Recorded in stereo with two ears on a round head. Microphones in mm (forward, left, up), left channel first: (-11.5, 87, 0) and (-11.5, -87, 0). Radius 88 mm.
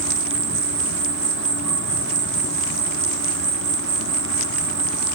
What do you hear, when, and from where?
0.0 s an insect: 65° right (ahead or behind), 1.1 m